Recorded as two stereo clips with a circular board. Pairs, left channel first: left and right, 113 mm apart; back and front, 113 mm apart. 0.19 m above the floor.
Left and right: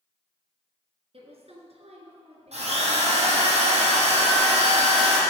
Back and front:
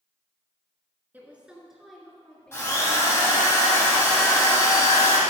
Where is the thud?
I don't hear a thud.